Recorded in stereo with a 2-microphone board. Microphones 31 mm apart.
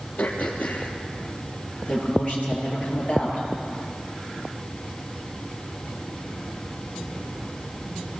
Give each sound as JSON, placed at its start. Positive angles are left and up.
{"t": 0.2, "sound": "throat clearing", "side_deg": 85, "distance_m": 3.5}
{"t": 1.9, "sound": "a man speaking", "side_deg": 45, "distance_m": 10.0}